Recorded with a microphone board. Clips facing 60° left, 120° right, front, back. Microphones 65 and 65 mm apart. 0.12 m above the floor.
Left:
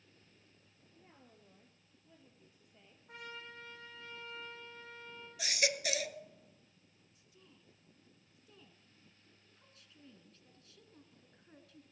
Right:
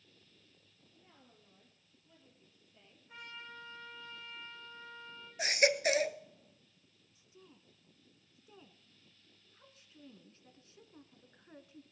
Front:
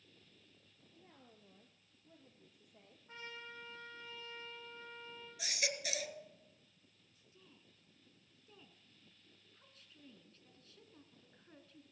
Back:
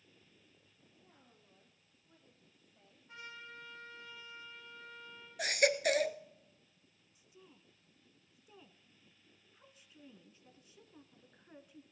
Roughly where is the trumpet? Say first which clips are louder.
Even, even; ahead left.